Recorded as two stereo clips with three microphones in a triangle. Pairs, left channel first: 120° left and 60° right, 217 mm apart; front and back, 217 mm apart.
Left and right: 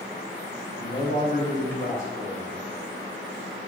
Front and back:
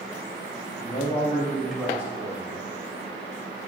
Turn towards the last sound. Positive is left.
turn(degrees=115)